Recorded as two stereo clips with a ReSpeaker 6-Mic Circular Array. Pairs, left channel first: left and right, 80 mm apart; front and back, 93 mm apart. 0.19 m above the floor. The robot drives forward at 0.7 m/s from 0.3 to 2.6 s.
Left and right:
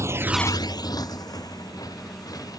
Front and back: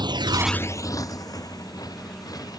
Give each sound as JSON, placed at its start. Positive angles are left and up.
{"t": 0.0, "sound": "a motorcycle", "azimuth_deg": -145}